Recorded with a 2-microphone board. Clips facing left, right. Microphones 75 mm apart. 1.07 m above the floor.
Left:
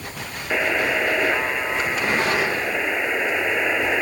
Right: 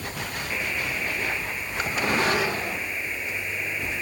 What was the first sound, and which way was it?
A buzzer, 80° left.